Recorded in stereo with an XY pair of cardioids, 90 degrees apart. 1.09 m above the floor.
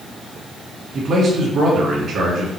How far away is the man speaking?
About 2 m.